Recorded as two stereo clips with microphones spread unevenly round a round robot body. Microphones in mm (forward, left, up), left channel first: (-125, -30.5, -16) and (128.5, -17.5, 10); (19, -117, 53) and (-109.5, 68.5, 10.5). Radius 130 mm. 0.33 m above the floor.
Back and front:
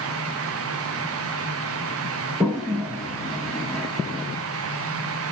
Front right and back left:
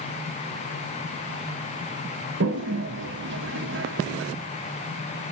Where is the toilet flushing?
95° left, 0.8 m.